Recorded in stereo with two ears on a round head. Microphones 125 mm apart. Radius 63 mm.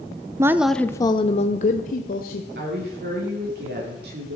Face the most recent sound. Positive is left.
turn(degrees=-75)  # may be behind; listen again after turning